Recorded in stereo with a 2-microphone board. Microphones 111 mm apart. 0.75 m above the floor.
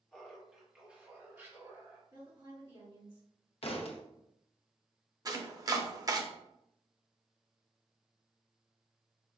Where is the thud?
60° left (ahead or behind), 0.6 m.